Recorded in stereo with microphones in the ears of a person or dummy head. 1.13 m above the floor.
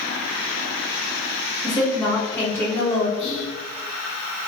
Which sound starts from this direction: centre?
A woman speaking, at 1.6 s.